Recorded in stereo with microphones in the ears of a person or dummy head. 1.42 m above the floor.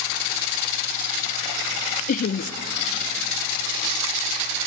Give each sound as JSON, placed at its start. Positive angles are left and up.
{"t": 2.1, "sound": "laughter", "side_deg": 55, "distance_m": 0.6}